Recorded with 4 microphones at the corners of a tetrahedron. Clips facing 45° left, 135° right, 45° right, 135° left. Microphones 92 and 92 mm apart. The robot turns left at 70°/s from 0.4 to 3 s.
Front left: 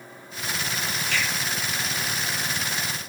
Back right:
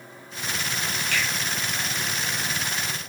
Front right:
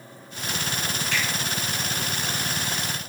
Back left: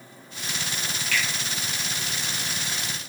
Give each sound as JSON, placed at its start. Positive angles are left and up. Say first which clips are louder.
{"t": 1.1, "sound": "a finger snap", "louder": "even, back left 1 dB", "azimuth_deg": -105, "distance_m": 0.9}